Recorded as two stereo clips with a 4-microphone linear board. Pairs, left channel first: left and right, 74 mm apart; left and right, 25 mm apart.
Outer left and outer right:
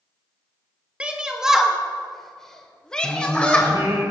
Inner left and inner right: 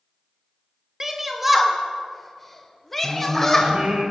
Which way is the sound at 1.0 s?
15° right (ahead or behind).